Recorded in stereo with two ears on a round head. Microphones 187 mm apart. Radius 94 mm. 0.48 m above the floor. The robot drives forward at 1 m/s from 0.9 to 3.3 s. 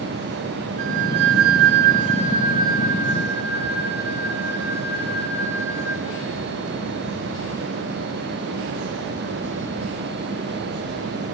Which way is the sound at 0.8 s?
35° right (ahead or behind).